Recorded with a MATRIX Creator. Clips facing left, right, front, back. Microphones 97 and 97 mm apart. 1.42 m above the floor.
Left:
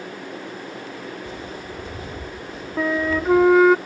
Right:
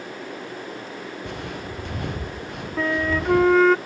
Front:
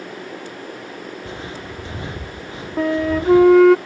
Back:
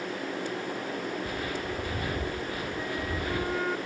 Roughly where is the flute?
Ahead.